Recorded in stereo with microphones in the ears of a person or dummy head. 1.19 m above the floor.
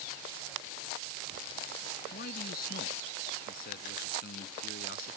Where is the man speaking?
55° left (ahead or behind).